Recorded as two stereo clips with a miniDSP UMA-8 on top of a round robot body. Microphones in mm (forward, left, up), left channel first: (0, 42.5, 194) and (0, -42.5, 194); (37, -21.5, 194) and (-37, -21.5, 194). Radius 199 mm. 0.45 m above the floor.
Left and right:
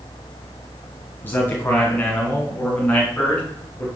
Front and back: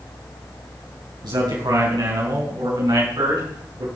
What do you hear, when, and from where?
1.2 s a man speaking: 155° left, 5.5 m; by 3.9 s 165° left, 6.5 m